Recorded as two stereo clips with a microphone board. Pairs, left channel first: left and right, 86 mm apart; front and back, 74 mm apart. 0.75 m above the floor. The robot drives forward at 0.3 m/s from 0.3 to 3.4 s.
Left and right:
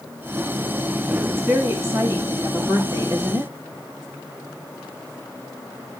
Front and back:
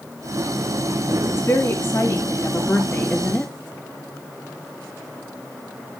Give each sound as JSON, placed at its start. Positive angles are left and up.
{"t": 1.3, "sound": "a woman speaking", "azimuth_deg": -40, "distance_m": 1.5}